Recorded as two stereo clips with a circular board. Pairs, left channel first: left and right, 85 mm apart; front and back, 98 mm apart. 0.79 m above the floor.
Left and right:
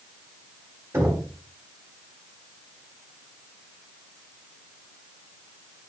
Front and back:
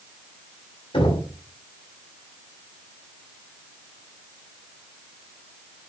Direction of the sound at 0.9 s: 30° right.